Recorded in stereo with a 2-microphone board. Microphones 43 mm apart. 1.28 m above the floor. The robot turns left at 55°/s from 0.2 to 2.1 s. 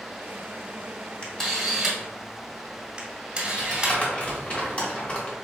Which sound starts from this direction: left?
Crumpling, at 3.6 s.